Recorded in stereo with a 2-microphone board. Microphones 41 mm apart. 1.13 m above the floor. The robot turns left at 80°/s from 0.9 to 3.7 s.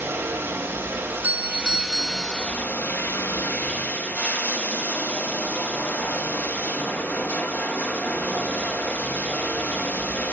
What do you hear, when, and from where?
0.0 s running water: 90° right, 1.1 m; by 10.3 s 45° left, 1.1 m
1.0 s a doorbell: 105° right, 0.7 m; by 2.5 s 135° left, 0.7 m